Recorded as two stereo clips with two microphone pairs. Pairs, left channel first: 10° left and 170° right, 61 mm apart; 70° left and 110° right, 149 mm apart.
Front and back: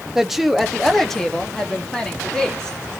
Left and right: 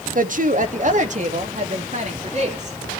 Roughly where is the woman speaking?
Right.